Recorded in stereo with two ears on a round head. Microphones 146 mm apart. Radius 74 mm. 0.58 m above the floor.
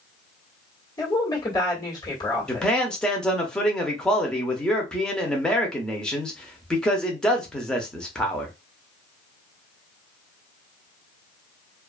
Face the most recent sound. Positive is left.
turn(degrees=5)  # may be behind; listen again after turning